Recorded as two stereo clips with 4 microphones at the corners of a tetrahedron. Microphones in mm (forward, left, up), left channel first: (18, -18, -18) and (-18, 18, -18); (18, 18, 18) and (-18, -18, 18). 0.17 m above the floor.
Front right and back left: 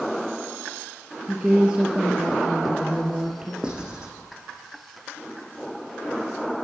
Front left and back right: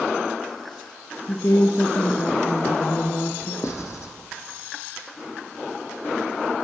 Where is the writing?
60° left, 3.5 m.